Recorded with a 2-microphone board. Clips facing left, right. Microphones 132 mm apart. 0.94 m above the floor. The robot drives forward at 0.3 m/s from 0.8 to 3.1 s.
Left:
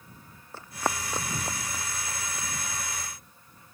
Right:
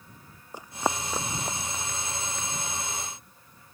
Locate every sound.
0.5 s running footsteps: 15° right (ahead or behind); by 2.5 s 10° left (ahead or behind)